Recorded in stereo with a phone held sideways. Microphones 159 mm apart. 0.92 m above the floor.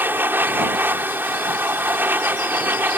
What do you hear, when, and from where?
0.0 s a machine running: 15° right (ahead or behind)